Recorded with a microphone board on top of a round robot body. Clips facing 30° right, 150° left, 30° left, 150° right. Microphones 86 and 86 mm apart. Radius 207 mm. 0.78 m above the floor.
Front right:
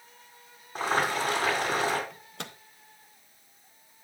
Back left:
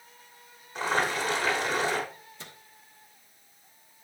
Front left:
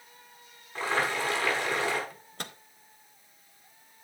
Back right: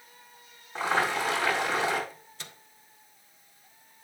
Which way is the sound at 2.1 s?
10° right.